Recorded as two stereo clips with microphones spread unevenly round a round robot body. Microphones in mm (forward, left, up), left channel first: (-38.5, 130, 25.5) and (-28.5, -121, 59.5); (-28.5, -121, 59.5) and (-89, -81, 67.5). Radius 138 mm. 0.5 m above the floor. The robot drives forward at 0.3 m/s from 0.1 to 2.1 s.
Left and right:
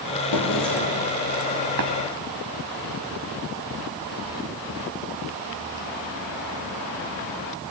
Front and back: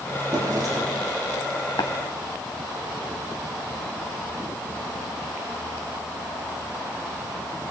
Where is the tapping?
50° right, 1.7 m; by 1.9 s 55° right, 1.7 m.